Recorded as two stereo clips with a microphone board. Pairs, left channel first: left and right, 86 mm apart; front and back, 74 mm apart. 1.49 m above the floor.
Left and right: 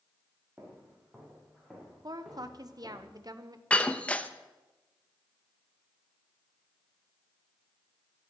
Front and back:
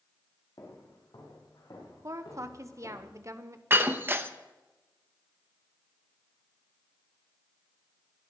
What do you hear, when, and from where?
0.6 s footsteps: 20° right, 4 m; by 3.0 s 5° right, 7 m
2.0 s a woman speaking: 135° right, 1.0 m
3.7 s breaking glass: 150° left, 0.7 m